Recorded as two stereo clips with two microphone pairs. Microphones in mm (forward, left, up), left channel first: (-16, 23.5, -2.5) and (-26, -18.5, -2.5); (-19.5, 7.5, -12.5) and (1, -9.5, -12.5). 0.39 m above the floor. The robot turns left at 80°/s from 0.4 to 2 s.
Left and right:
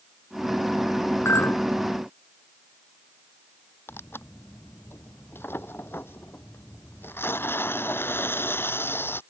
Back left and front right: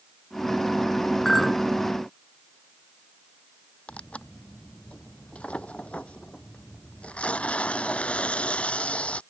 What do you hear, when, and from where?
1.2 s a clink: 70° left; by 1.7 s 40° left
3.9 s tearing paper: 105° left